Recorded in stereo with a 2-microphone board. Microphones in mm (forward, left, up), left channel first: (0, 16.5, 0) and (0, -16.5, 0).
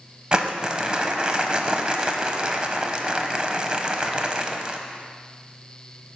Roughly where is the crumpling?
Right.